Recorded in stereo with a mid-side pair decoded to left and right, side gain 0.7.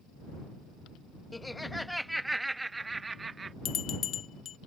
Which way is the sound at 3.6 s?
45° left.